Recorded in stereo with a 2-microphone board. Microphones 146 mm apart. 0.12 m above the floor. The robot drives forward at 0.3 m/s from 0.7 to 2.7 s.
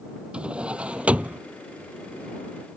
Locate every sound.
0.3 s a drawer: 5° right (ahead or behind); by 1.4 s 10° right (ahead or behind)